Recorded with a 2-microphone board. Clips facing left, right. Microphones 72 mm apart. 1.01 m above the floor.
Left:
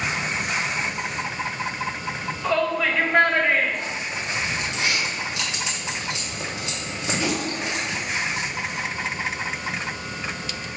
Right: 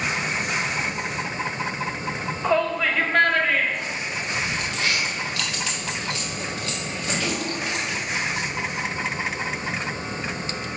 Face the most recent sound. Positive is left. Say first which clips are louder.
# right 1 dB
turn(degrees=20)  # may be behind; listen again after turning